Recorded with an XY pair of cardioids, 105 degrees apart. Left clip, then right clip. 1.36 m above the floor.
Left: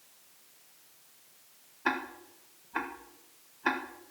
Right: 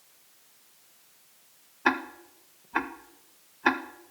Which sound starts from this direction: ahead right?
Ticking, at 1.9 s.